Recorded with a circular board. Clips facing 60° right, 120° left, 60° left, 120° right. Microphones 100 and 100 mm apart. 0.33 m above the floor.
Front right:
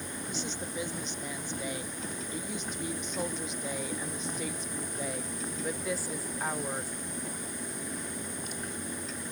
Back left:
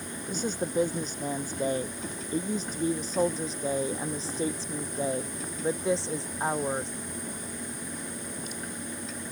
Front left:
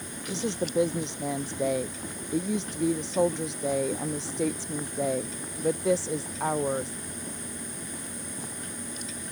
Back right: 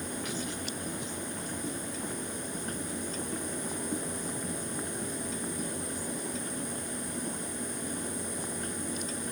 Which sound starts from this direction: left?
A woman speaking, at 0.3 s.